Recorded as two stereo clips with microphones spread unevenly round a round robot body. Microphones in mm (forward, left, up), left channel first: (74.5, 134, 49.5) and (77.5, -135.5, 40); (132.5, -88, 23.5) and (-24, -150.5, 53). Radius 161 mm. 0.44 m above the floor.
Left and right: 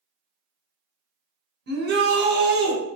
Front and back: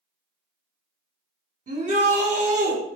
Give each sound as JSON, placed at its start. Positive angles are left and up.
{"t": 1.7, "sound": "a shout", "azimuth_deg": -120, "distance_m": 1.7}